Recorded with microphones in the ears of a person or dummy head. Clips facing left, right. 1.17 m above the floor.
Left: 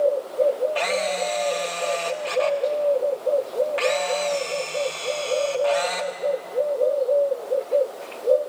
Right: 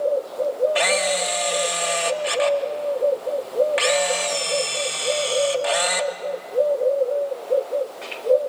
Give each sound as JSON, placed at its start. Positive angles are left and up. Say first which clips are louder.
{"t": 0.8, "sound": "a camera shutter", "louder": "right 2 dB", "side_deg": -25, "distance_m": 1.0}